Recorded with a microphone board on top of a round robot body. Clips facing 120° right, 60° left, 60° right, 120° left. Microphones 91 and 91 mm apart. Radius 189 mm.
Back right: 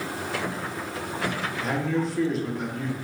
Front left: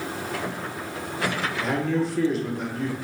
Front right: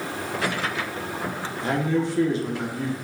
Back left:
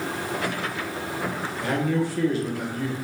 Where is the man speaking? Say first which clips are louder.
Front left 1 dB, front right 1 dB; 30° right, 1.2 m.